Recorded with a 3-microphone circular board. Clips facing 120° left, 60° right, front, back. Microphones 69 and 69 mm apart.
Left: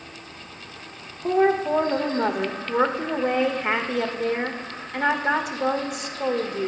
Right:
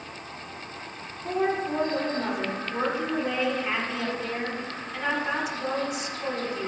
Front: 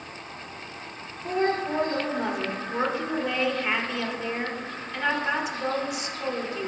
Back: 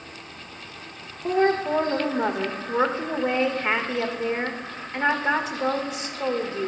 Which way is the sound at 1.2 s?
130° left.